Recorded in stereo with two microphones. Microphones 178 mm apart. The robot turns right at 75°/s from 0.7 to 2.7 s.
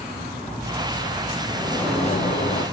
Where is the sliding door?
5° right, 6.5 m; by 2.6 s 85° left, 6.5 m.